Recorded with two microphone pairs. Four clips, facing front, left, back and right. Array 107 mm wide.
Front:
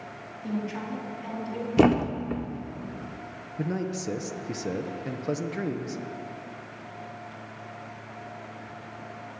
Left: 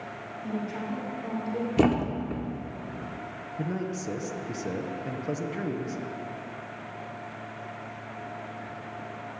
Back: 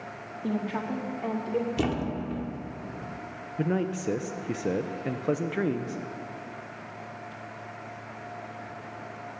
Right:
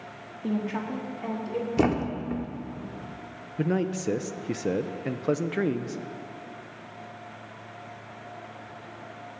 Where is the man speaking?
115° right, 0.7 m.